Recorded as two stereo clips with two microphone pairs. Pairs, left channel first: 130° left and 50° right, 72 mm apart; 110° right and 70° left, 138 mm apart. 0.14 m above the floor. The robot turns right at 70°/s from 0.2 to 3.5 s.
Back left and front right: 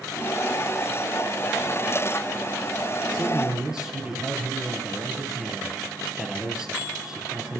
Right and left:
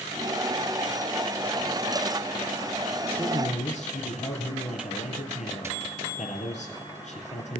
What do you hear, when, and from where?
3.1 s a man speaking: 160° right, 2.5 m; by 7.6 s 130° right, 2.5 m